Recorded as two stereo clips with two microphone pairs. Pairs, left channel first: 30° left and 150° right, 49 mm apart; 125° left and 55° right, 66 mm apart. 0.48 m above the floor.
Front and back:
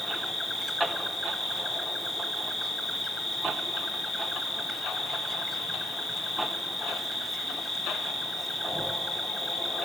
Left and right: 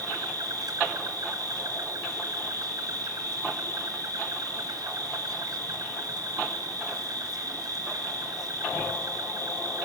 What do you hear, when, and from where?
0.0 s an insect: 60° right, 2.5 m